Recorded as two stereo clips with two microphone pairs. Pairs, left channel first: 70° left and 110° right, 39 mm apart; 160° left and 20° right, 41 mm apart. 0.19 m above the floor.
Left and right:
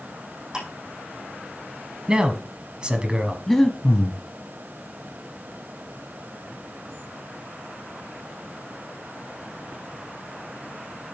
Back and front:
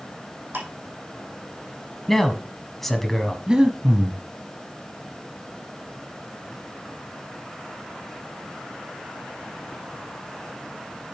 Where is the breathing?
15° left, 0.8 m.